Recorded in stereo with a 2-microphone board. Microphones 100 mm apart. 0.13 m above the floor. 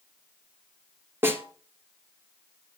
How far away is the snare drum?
About 1.9 m.